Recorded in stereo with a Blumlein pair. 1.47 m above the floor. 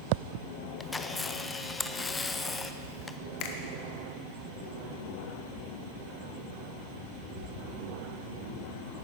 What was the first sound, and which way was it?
A camera shutter, 10° left.